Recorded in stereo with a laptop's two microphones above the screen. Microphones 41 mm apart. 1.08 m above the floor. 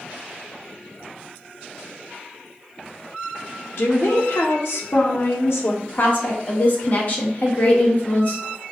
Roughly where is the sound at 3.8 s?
Left.